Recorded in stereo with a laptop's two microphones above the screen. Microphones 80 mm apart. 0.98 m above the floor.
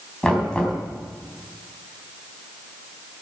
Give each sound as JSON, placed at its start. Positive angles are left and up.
{"t": 0.2, "sound": "knocking", "side_deg": 10, "distance_m": 5.5}